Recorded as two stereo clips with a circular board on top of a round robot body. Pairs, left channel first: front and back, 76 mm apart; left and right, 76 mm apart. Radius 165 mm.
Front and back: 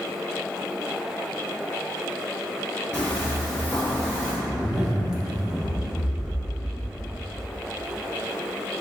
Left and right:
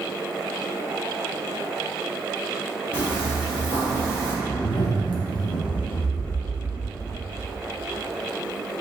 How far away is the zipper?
About 0.6 m.